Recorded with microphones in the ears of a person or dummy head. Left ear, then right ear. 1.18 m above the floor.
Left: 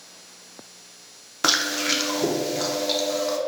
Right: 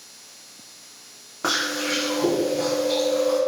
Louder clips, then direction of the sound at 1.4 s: Left 2 dB; 60° left (ahead or behind).